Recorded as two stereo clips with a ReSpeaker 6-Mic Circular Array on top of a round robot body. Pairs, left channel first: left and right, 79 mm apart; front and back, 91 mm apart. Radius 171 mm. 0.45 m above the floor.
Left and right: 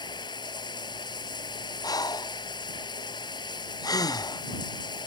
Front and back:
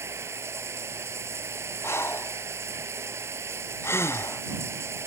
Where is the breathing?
60° left.